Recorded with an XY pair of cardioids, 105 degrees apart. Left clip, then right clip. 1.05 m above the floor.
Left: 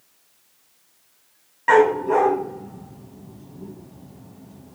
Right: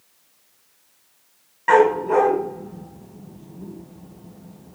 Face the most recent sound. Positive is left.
turn(degrees=5)